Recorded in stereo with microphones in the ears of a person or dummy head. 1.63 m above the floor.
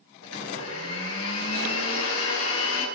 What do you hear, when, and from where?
0.2 s a blender: 70° left (ahead or behind), 7 m